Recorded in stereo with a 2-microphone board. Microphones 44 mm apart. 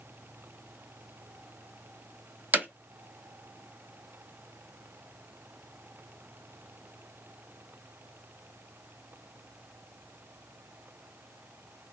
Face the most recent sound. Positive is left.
turn(degrees=-45)  # may be behind; listen again after turning